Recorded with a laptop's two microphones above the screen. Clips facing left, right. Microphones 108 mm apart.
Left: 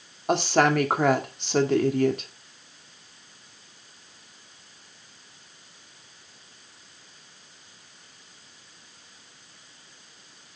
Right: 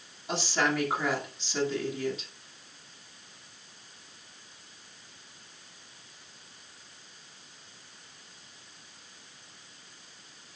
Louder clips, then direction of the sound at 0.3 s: Left 8 dB; 60° left (ahead or behind).